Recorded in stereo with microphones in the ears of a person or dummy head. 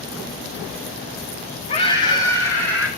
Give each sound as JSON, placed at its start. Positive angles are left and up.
{"t": 1.7, "sound": "a scream", "side_deg": 25, "distance_m": 3.0}